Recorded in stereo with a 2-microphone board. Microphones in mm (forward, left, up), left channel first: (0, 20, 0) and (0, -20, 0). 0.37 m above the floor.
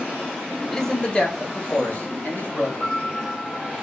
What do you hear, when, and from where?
0.7 s a man speaking: 10° left (ahead or behind), 0.9 m; by 2.7 s 65° left (ahead or behind), 2.5 m
2.8 s a piano: 80° left, 2.5 m